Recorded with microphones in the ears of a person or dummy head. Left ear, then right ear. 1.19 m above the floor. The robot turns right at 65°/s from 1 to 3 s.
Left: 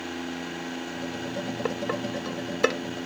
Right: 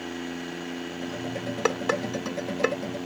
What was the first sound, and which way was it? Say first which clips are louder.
Dishes clattering: right 6 dB; 55° right (ahead or behind).